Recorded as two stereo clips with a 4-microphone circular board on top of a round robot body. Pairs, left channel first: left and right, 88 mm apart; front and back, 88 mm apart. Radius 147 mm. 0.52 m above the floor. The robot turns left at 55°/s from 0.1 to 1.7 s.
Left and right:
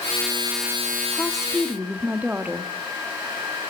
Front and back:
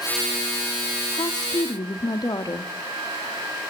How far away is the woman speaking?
About 1.7 m.